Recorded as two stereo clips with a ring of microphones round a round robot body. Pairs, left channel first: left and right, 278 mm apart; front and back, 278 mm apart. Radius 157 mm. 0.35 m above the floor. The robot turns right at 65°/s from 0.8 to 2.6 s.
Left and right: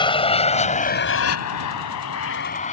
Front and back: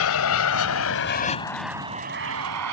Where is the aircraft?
20° left; by 2.7 s 155° left.